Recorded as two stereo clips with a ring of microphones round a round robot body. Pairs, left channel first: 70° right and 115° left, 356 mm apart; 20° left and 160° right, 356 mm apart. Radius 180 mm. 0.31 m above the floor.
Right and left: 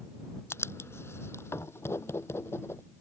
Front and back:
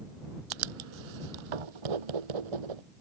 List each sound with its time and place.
0.5 s writing: 150° right